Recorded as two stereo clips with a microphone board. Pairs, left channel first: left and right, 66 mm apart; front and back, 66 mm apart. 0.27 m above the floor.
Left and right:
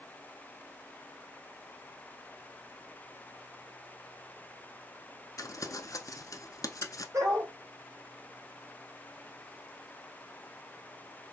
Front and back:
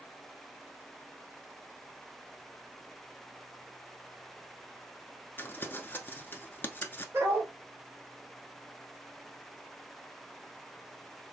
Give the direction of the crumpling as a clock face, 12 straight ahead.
10 o'clock.